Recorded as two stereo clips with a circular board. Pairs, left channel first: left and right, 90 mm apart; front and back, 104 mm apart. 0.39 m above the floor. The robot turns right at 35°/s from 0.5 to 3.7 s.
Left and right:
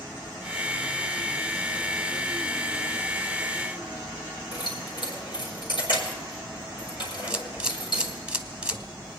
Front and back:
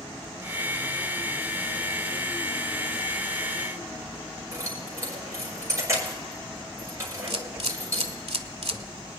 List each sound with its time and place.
4.5 s keys jangling: 115° left, 4.5 m
7.3 s a camera shutter: 170° right, 0.9 m